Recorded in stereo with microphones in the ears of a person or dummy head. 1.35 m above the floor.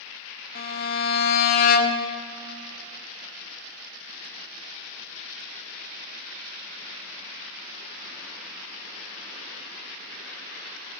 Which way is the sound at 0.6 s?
50° left (ahead or behind).